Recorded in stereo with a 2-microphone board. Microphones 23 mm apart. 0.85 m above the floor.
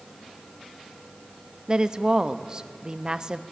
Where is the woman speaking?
30° right (ahead or behind), 0.9 m.